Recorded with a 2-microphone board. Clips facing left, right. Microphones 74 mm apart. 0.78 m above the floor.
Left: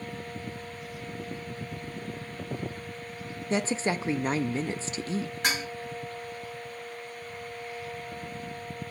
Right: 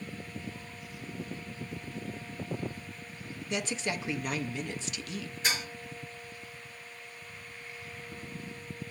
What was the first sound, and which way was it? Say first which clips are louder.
A woman speaking: left 6 dB; 35° left (ahead or behind).